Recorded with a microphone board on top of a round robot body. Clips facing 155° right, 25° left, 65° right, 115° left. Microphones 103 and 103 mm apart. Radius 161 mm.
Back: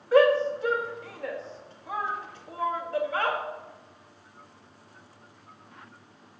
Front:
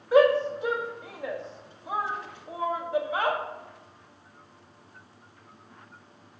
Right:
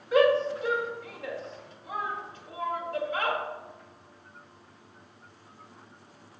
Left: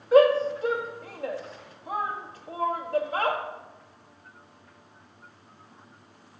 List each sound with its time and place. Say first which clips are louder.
0.1 s a shout: even, left 4 dB; 90° left, 1.7 m